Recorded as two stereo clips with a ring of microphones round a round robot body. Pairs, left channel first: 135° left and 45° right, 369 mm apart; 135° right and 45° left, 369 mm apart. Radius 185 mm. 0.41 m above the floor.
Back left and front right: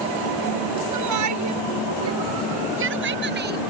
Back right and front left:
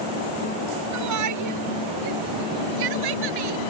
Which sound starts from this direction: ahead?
A shout, at 0.9 s.